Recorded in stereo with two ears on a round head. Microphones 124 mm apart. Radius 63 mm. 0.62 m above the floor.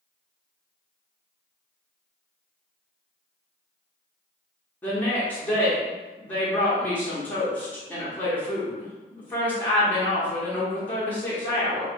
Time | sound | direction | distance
4.8 | a woman speaking | 10° left (ahead or behind) | 0.8 m